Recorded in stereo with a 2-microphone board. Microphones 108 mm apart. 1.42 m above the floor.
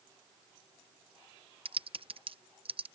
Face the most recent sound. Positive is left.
turn(degrees=-60)  # may be behind; listen again after turning